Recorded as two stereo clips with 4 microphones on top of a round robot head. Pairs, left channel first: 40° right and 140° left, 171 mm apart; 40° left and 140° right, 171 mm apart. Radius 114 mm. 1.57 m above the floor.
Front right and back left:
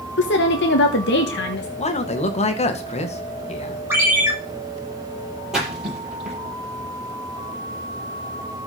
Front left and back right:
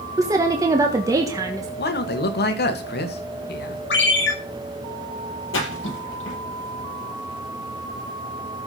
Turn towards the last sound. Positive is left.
turn(degrees=55)